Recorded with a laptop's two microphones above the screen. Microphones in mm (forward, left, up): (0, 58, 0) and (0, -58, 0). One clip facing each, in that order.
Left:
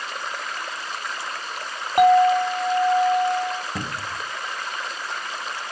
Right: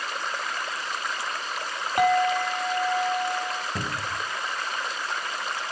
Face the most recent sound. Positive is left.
turn(degrees=20)  # may be behind; listen again after turning